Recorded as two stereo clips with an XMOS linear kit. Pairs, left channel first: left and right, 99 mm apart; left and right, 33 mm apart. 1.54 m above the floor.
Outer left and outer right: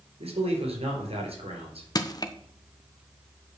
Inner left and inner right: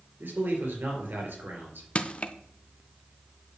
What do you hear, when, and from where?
0.2 s a man speaking: 80° right, 4.5 m
1.9 s crushing: 40° left (ahead or behind), 0.8 m